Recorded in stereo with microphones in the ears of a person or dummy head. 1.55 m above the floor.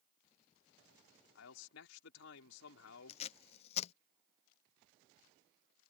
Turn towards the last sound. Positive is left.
turn(degrees=35)  # may be behind; listen again after turning